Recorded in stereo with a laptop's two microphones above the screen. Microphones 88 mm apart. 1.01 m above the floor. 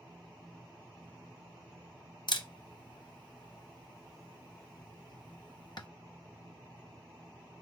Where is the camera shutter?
55° left (ahead or behind), 0.6 m.